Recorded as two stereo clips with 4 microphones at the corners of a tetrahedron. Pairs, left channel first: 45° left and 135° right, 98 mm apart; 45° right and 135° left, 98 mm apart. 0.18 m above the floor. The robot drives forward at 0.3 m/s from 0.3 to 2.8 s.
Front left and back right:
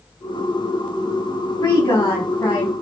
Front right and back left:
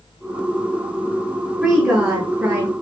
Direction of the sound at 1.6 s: 80° left.